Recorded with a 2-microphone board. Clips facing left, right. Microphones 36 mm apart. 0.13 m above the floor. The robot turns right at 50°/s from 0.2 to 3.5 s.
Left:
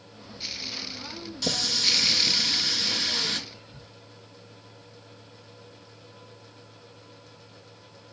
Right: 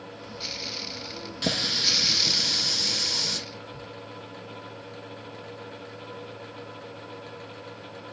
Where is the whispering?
25° left (ahead or behind), 3 m.